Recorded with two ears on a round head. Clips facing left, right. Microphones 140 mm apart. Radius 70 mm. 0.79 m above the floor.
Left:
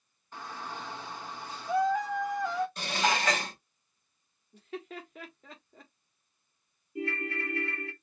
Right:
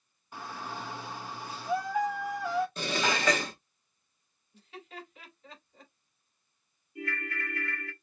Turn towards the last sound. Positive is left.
turn(degrees=25)  # may be behind; listen again after turning